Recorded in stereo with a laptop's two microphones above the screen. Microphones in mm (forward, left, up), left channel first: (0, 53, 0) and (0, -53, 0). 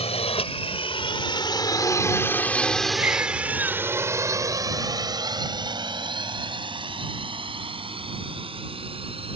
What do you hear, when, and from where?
0.0 s a drone: 70° left (ahead or behind); by 9.4 s 60° right (ahead or behind)
3.0 s a baby crying: 15° right (ahead or behind)